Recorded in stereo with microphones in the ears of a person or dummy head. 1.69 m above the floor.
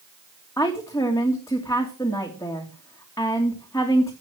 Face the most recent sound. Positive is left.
turn(degrees=15)  # may be behind; listen again after turning